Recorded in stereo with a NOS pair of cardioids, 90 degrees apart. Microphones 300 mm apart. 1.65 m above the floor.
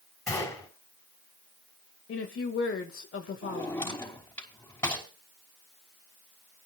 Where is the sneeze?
No sneeze in this recording.